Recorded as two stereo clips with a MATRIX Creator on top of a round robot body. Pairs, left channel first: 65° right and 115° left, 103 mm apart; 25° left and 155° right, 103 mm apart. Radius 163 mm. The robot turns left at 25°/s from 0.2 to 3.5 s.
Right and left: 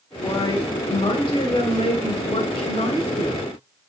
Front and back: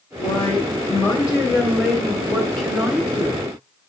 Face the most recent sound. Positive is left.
turn(degrees=-85)